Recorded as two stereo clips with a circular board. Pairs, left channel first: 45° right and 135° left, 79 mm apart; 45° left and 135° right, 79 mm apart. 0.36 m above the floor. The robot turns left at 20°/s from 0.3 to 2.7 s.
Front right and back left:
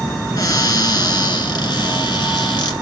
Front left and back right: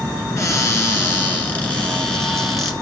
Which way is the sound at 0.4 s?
5° right.